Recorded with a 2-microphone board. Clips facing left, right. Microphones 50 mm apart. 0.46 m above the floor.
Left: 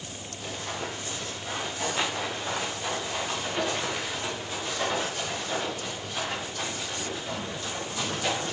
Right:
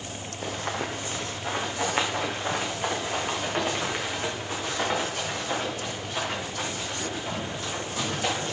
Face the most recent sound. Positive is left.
turn(degrees=-30)  # may be behind; listen again after turning